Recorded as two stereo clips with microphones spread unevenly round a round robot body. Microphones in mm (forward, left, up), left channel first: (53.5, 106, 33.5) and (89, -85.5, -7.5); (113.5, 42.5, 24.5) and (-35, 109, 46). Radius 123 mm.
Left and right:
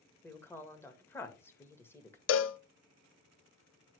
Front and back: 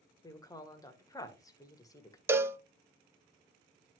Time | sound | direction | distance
0.2 | a woman speaking | 15° left | 1.3 m
2.3 | a cowbell | 80° left | 0.7 m